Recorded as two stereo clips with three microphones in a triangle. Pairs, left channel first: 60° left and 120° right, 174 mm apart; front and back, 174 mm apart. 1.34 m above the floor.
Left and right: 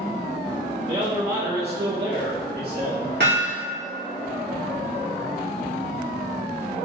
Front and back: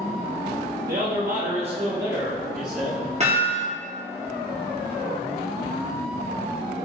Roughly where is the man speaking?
Behind.